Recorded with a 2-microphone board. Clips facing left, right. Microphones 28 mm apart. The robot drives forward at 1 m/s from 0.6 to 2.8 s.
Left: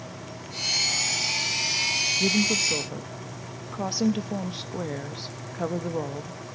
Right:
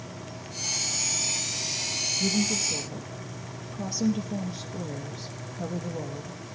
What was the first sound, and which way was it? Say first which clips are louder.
A woman speaking: left 2 dB; 40° left (ahead or behind).